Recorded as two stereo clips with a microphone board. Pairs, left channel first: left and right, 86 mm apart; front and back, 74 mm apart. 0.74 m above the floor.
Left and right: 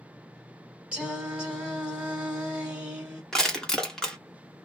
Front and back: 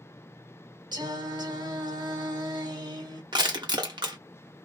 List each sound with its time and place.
0.9 s singing: 165° right, 1.0 m
3.3 s crushing: 175° left, 0.9 m